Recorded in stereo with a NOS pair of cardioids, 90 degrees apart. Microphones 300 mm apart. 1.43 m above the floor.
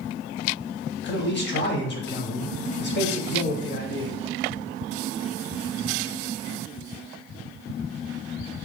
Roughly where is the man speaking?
Ahead left.